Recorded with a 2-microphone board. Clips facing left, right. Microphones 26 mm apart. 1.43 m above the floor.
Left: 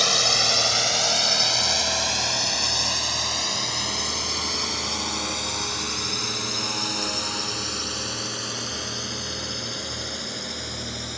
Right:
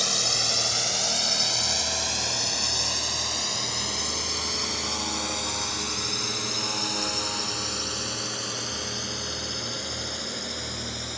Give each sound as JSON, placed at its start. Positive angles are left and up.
{"t": 0.0, "sound": "a drone", "side_deg": 30}